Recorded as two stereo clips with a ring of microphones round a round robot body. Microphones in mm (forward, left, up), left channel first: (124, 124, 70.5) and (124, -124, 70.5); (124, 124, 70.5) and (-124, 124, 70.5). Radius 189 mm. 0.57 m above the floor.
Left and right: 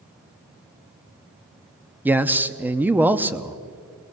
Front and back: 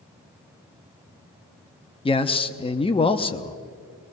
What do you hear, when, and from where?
2.0 s a man speaking: 20° right, 0.9 m